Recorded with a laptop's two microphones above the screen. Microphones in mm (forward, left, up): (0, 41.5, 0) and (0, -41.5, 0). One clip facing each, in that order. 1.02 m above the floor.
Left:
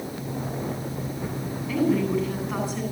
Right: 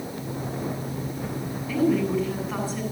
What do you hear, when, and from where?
1.7 s a woman speaking: centre (ahead or behind), 9.5 m